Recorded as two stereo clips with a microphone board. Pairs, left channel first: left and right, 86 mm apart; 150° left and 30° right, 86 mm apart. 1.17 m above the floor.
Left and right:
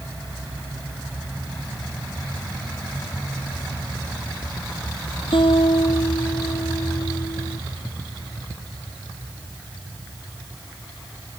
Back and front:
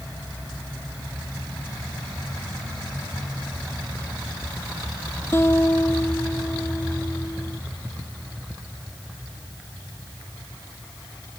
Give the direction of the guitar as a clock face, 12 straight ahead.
9 o'clock.